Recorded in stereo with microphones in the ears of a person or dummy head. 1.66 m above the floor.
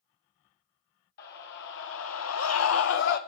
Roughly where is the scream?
Left.